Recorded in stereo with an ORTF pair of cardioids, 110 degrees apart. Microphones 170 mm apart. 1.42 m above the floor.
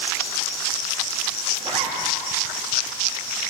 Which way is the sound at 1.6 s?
35° right.